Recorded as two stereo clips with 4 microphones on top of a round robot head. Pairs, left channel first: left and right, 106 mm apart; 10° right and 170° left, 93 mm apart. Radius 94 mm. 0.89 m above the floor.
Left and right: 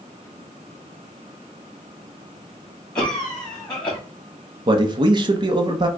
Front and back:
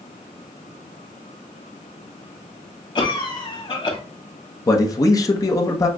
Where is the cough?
10° left, 2.5 m.